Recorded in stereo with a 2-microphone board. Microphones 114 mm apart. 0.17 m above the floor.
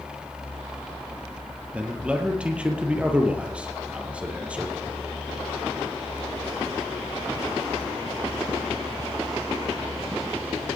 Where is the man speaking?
10° right (ahead or behind), 3.5 m.